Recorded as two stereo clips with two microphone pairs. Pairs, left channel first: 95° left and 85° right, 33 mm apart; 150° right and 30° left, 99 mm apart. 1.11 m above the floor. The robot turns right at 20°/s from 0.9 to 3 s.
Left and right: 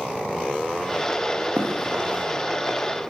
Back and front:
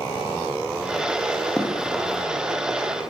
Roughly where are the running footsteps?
Right.